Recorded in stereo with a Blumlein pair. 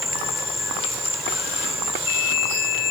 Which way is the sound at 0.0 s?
5° left.